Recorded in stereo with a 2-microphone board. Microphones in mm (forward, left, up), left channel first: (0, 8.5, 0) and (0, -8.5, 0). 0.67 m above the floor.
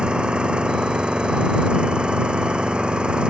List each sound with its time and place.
0.0 s an engine running: 80° right